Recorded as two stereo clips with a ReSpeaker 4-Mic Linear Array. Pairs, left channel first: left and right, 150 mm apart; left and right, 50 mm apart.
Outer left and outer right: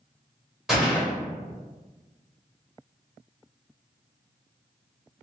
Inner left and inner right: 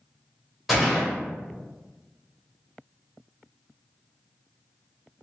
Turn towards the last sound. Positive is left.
turn(degrees=-5)  # may be behind; listen again after turning